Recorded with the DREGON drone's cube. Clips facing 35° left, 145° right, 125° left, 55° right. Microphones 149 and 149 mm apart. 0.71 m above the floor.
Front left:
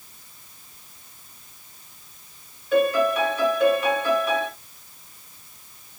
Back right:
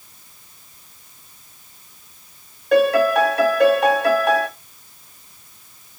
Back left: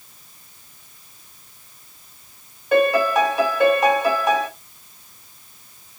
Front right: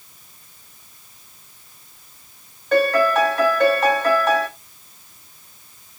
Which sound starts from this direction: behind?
A piano, at 2.7 s.